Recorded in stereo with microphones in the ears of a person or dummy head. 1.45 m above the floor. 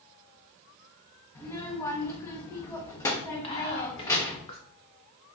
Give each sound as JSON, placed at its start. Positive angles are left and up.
{"t": 1.4, "sound": "a child speaking", "side_deg": 20, "distance_m": 1.1}
{"t": 3.4, "sound": "whispering", "side_deg": 35, "distance_m": 1.2}